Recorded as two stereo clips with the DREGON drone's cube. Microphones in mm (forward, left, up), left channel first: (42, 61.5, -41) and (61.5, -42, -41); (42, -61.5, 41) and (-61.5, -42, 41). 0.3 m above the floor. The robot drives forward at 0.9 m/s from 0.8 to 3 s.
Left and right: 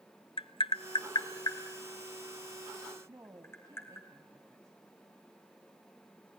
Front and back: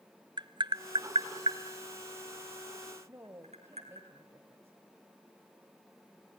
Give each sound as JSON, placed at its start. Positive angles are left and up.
{"t": 0.4, "sound": "tapping", "azimuth_deg": 130, "distance_m": 0.6}
{"t": 3.1, "sound": "a woman speaking", "azimuth_deg": -130, "distance_m": 1.4}